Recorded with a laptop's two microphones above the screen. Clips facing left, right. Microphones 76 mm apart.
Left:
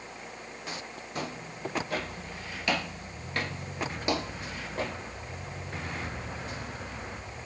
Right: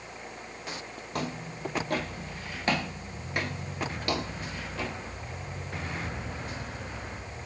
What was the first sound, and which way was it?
Footsteps, 65° right (ahead or behind).